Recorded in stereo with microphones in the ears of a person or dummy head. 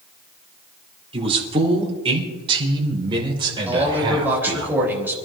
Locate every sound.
1.1 s a man speaking: 30° right (ahead or behind), 3.5 m; by 4.7 s 20° right (ahead or behind), 5.5 m
3.7 s a man speaking: 5° right (ahead or behind), 4 m